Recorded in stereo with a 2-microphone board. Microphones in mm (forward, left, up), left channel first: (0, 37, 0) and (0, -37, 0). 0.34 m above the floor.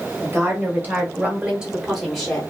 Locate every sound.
0.2 s a woman speaking: 30° right (ahead or behind), 1.3 m; by 2.4 s 10° left (ahead or behind), 0.9 m